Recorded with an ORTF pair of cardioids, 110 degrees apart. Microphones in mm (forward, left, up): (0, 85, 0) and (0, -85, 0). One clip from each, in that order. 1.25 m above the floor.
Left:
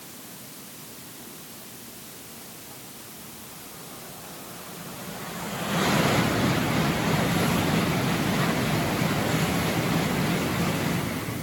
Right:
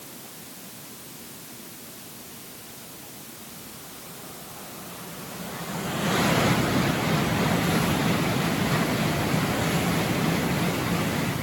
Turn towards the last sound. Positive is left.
No sound to turn to.